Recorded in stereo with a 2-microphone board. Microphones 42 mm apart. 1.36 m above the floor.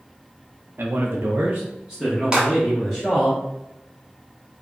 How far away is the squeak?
No squeak in this recording.